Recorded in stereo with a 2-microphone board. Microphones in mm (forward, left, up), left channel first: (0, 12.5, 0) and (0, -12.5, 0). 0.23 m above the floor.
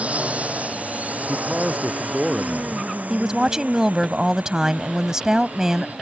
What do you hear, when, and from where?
0.0 s a drone: 60° right (ahead or behind); by 6.0 s 75° right (ahead or behind)
1.3 s a man speaking: 15° right (ahead or behind)
3.1 s a woman speaking: 25° right (ahead or behind)